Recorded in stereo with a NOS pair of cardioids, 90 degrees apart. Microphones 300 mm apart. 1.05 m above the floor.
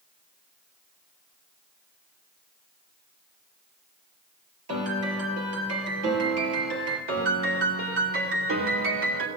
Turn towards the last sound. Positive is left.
turn(degrees=-45)